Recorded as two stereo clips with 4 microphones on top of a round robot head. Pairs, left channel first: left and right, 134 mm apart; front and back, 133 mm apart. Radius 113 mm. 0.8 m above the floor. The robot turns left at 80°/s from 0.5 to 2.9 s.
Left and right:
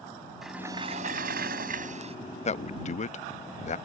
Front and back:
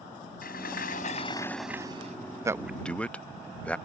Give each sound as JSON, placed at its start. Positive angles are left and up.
{"t": 0.4, "sound": "a sliding door", "azimuth_deg": 0}
{"t": 2.5, "sound": "a man speaking", "azimuth_deg": 115}